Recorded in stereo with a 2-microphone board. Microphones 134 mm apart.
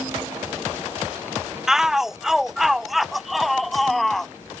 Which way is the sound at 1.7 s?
5° right (ahead or behind).